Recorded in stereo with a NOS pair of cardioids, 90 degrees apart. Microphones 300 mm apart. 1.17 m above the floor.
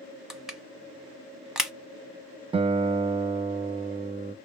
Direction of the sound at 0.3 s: Straight ahead.